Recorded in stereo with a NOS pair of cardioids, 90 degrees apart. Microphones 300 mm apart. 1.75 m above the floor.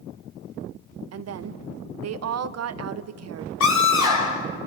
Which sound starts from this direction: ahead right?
A woman speaking, at 1.1 s.